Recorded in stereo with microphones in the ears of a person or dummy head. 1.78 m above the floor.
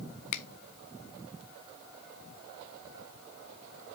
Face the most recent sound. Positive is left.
turn(degrees=30)  # may be behind; listen again after turning